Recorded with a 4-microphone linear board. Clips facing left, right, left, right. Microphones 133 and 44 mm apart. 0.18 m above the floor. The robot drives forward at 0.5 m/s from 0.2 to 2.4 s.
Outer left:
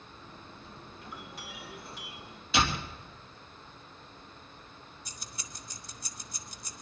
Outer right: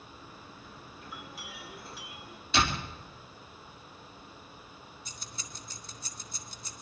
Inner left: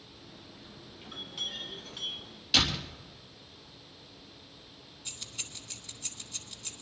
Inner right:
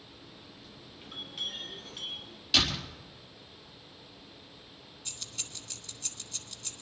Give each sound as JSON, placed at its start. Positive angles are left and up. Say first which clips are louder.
{"t": 1.0, "sound": "a clink", "louder": "even, even", "side_deg": 0, "distance_m": 3.5}
{"t": 2.5, "sound": "a door slam", "louder": "even, even", "side_deg": 5, "distance_m": 3.0}
{"t": 5.0, "sound": "keys jangling", "louder": "outer left 1 dB, inner left 1 dB", "side_deg": 15, "distance_m": 1.0}